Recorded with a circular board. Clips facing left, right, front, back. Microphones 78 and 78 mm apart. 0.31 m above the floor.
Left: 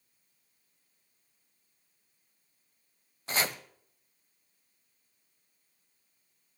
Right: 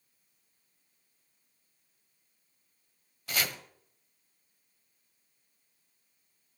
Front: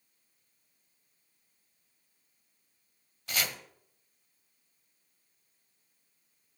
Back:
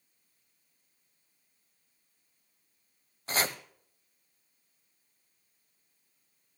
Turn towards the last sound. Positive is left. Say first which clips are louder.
# left 2 dB, back 4 dB
turn(degrees=140)